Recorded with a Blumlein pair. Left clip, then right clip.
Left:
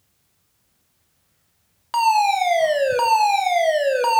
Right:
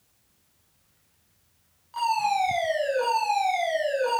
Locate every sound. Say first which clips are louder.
1.9 s a fire alarm: left 7 dB; 40° left, 2 m